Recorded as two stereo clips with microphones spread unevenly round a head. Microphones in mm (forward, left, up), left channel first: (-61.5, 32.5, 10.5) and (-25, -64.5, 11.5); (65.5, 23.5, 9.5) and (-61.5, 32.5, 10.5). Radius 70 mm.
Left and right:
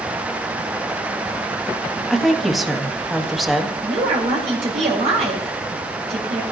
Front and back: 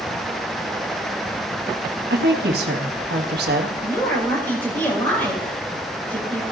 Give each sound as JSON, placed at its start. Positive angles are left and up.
{"t": 2.1, "sound": "a woman speaking", "azimuth_deg": -155, "distance_m": 1.6}
{"t": 3.8, "sound": "a woman speaking", "azimuth_deg": -80, "distance_m": 4.0}